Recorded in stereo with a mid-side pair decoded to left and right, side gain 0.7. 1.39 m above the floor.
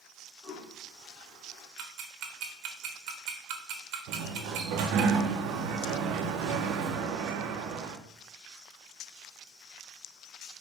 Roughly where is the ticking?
Ahead right.